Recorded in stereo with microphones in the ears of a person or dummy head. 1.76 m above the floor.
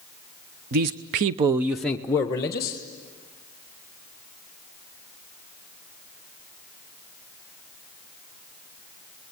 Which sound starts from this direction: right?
A man speaking, at 0.7 s.